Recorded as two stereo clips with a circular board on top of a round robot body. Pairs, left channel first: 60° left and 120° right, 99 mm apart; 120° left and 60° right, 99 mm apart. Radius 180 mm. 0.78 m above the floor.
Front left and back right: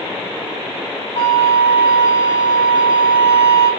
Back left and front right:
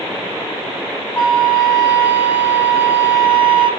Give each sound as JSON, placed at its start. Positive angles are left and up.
{"t": 1.1, "sound": "a flute", "azimuth_deg": 50, "distance_m": 2.5}